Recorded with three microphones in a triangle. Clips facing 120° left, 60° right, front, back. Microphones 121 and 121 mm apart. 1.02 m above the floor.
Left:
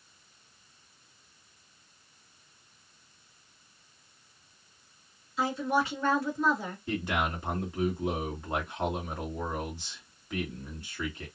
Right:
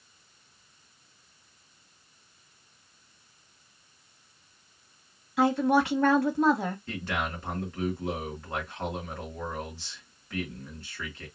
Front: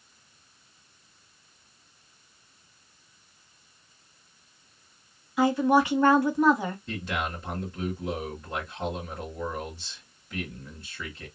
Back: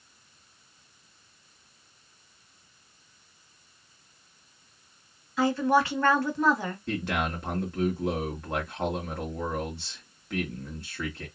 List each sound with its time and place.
5.4 s a woman speaking: 75° right, 1.2 m
6.9 s a man speaking: 165° right, 1.8 m